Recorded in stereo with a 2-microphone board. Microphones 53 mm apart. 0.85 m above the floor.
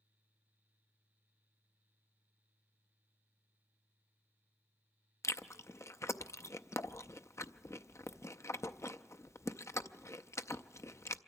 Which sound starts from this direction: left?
Chewing, at 5.2 s.